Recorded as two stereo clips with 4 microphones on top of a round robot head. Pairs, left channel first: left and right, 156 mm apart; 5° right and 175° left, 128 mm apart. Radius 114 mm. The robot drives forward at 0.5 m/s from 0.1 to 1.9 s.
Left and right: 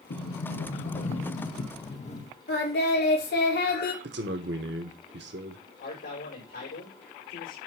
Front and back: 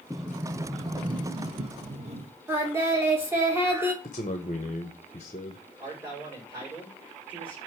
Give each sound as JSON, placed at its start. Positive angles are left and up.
{"t": 0.1, "sound": "a sliding door", "azimuth_deg": 85, "distance_m": 0.8}
{"t": 2.5, "sound": "singing", "azimuth_deg": 105, "distance_m": 2.5}
{"t": 4.0, "sound": "a man speaking", "azimuth_deg": -65, "distance_m": 0.8}
{"t": 5.8, "sound": "a man speaking", "azimuth_deg": 105, "distance_m": 5.0}